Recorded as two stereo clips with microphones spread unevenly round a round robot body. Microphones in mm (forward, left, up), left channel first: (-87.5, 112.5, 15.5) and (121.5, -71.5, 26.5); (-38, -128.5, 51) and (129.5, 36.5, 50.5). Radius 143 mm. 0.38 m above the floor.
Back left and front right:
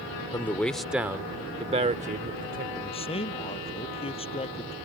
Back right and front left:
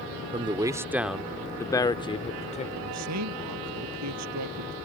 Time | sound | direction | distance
0.3 | a man speaking | 75° left | ?
2.8 | a man speaking | 70° left | ?